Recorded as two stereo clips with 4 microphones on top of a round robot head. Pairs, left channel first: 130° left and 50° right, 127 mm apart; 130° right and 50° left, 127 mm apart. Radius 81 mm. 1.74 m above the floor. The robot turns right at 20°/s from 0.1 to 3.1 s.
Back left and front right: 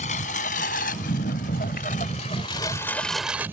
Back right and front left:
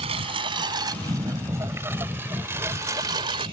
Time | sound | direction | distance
0.0 | a lawn mower | 95° left | ?